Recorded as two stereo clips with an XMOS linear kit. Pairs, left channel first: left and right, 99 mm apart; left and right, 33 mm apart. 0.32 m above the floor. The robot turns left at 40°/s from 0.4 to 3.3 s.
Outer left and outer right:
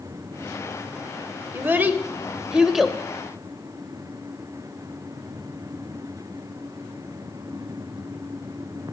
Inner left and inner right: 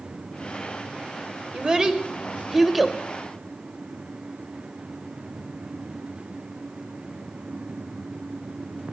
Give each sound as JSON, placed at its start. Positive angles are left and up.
{"t": 1.5, "sound": "a child speaking", "side_deg": -20, "distance_m": 0.7}